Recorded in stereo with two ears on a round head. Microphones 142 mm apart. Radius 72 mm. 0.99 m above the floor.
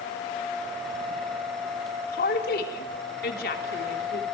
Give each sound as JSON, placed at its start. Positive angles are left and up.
{"t": 2.1, "sound": "a woman speaking", "side_deg": 65, "distance_m": 3.0}